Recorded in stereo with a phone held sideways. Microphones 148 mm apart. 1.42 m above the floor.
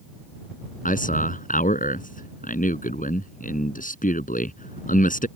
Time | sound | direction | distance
0.8 | a man speaking | 75° left (ahead or behind) | ?